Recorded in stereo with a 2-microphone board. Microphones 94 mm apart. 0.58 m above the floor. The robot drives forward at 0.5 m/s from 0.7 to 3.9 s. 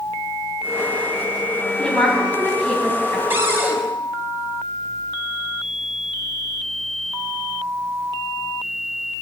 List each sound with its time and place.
1.8 s a woman speaking: 10° left (ahead or behind), 4 m
3.3 s a cupboard door: 25° right (ahead or behind), 1.7 m; by 3.8 s 20° right (ahead or behind), 1.9 m